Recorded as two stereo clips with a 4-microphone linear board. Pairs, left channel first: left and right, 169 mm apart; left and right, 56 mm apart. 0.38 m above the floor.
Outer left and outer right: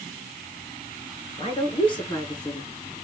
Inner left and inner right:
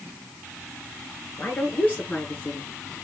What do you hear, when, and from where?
1.4 s a woman speaking: 30° left (ahead or behind), 5 m; by 2.7 s 20° left (ahead or behind), 4.5 m